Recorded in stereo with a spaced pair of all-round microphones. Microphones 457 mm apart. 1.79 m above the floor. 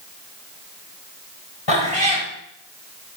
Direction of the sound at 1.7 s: 70° left (ahead or behind).